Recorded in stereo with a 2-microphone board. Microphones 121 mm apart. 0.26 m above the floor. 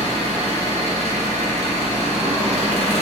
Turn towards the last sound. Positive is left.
turn(degrees=-65)  # may be behind; listen again after turning